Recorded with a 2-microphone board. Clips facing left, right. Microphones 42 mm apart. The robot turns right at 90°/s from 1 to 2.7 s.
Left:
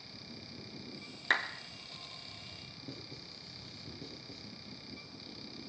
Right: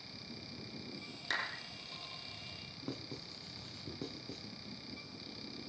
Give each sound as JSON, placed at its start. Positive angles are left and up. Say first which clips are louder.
{"t": 1.3, "sound": "a clap", "louder": "left 7 dB", "side_deg": 40, "distance_m": 2.5}
{"t": 2.8, "sound": "writing", "louder": "right 5 dB", "side_deg": -60, "distance_m": 2.5}